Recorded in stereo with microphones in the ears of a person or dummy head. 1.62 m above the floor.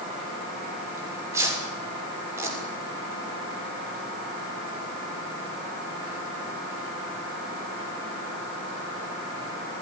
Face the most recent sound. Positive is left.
turn(degrees=-15)  # may be behind; listen again after turning